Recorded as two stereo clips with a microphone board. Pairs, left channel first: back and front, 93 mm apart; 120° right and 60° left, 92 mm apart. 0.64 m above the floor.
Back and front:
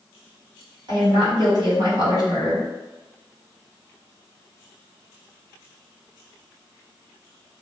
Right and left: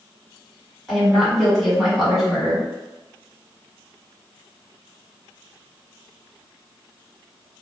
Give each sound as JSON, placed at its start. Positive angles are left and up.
{"t": 0.9, "sound": "a woman speaking", "azimuth_deg": -30, "distance_m": 1.5}